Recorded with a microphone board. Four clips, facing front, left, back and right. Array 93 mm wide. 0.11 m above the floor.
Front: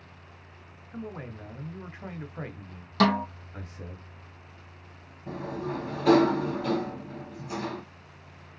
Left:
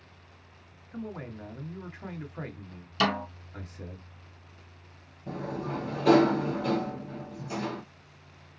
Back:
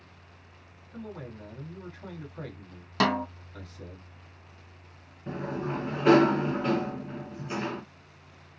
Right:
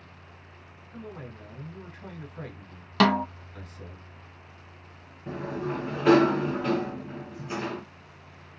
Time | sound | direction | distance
0.9 | a man speaking | 30° left | 1.5 m
3.0 | a snare drum | 105° right | 1.5 m
5.3 | a sliding door | 135° right | 1.9 m